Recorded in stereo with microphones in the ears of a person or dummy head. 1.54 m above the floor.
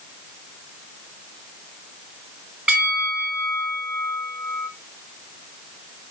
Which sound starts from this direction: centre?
A bell, at 2.7 s.